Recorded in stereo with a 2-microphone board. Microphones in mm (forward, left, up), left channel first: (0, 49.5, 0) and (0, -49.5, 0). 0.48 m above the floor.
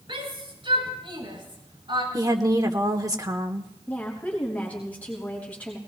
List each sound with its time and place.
0.1 s a shout: 60° right (ahead or behind), 7.5 m
2.1 s a woman speaking: 40° right (ahead or behind), 1.2 m
3.9 s a woman speaking: 15° left (ahead or behind), 4.5 m